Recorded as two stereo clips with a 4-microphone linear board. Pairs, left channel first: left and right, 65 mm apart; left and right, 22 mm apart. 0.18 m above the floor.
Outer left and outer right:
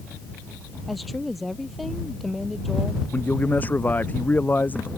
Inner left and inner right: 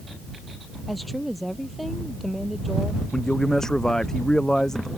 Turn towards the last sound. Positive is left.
turn(degrees=25)  # may be behind; listen again after turning